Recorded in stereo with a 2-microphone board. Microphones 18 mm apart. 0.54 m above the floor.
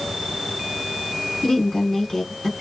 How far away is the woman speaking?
About 1.7 m.